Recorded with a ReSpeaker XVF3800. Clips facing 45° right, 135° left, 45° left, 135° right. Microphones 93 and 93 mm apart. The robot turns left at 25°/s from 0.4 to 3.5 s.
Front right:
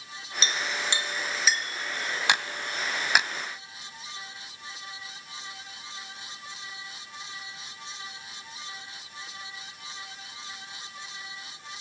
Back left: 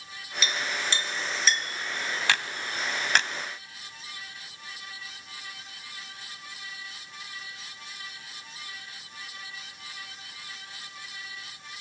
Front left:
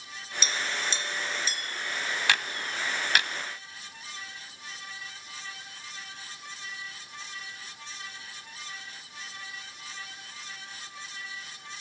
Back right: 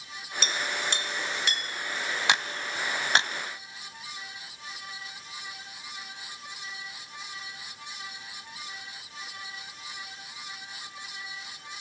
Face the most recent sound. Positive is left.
turn(degrees=-125)